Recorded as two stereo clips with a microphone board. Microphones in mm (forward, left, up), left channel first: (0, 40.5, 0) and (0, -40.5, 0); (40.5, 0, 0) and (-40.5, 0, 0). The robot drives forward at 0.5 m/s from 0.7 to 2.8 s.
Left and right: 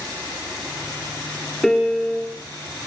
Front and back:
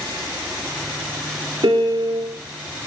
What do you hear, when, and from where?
1.6 s a piano: 175° left, 2.5 m